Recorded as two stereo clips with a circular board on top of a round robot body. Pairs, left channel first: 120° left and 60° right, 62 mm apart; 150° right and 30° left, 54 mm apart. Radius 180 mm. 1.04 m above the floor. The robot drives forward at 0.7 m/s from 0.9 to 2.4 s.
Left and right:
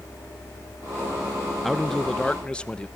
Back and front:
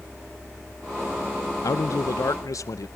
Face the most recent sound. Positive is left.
turn(degrees=-165)